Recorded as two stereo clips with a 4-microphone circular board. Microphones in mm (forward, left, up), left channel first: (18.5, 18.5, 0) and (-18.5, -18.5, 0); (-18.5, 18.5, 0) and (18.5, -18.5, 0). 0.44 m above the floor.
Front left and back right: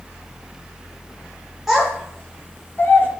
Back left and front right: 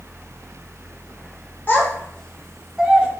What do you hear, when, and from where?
1.7 s a child speaking: 150° left, 0.5 m; by 3.1 s 15° left, 0.7 m